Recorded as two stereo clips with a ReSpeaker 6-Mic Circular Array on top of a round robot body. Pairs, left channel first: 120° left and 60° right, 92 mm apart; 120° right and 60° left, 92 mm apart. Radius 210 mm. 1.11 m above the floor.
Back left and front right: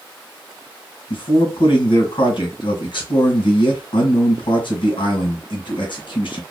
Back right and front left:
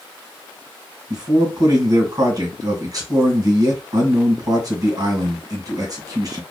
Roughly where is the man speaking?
Left.